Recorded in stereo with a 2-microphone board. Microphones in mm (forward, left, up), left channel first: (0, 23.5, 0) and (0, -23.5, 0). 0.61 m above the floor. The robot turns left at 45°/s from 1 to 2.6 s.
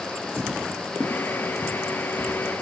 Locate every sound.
0.4 s footsteps: 20° right (ahead or behind), 0.8 m; by 2.6 s 40° right (ahead or behind), 1.8 m